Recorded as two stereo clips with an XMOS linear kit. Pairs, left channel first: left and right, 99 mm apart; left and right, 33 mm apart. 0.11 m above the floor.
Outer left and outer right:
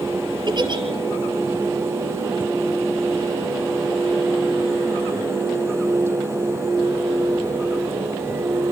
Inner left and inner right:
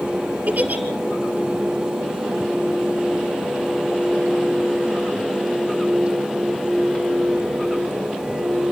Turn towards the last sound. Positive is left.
turn(degrees=-50)  # may be behind; listen again after turning